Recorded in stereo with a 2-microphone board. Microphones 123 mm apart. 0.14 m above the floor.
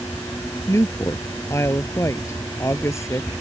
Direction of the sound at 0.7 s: 25° left (ahead or behind).